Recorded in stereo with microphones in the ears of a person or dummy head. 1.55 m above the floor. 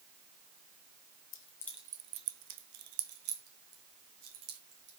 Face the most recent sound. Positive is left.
turn(degrees=-75)  # may be behind; listen again after turning